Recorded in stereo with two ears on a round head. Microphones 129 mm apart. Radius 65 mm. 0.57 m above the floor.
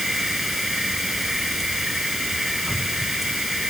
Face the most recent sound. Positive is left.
turn(degrees=0)  # may be behind; listen again after turning